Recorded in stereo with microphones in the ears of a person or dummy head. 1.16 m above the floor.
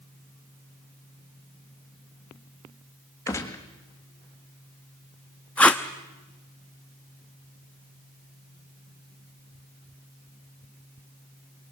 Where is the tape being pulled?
5° left (ahead or behind), 0.8 m.